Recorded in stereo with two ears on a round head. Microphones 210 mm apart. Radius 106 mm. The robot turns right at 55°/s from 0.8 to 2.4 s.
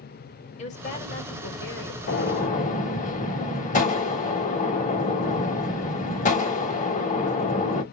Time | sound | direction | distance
0.6 | a woman speaking | 40° left | 2 m
2.1 | a gunshot | 50° left (ahead or behind) | 2.5 m